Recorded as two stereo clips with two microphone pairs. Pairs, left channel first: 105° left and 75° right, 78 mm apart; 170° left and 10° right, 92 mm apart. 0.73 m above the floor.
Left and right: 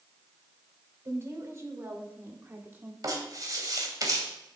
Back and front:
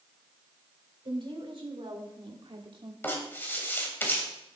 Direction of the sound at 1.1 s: 30° right.